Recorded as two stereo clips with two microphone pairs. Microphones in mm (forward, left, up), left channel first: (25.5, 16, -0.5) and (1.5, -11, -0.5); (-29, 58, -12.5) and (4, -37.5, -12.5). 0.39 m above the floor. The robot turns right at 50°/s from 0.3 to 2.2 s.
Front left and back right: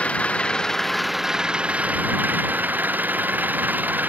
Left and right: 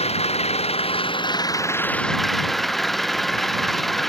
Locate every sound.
0.0 s an engine running: 100° left; by 4.1 s 165° right